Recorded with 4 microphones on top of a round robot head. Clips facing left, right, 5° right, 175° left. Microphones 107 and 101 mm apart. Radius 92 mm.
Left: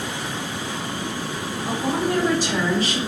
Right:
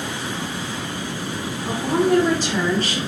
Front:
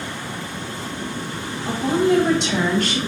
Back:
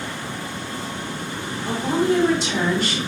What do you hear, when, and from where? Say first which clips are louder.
1.6 s a woman speaking: right 4 dB, front 2 dB; straight ahead, 2.5 m; by 3.0 s 15° left, 2.5 m